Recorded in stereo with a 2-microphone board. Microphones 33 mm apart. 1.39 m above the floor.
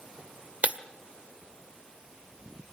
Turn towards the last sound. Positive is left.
turn(degrees=-45)  # may be behind; listen again after turning